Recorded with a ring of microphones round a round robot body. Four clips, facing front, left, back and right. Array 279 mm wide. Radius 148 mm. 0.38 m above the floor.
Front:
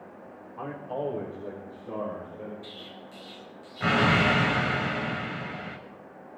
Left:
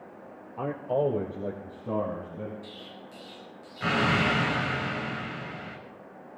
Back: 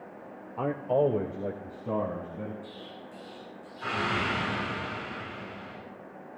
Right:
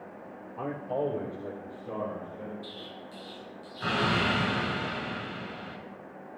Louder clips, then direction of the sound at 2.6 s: Right 1 dB, back 1 dB; 10° left.